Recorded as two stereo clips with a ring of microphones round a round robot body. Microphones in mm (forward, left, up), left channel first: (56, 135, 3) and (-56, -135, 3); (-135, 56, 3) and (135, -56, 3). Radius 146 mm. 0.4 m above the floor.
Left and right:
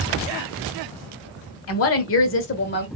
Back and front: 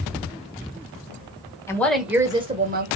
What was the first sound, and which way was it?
A woman speaking, 80° left.